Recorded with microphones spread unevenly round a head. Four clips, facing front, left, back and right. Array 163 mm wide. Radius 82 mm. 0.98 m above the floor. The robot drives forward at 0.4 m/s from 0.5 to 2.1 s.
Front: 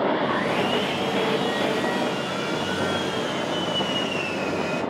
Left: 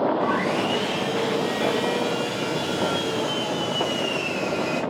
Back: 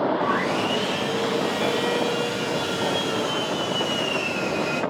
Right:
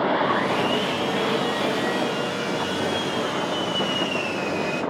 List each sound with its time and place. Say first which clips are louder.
0.2 s sawing: right 1 dB, even; 135° left, 0.9 m; by 4.8 s 160° left, 1.4 m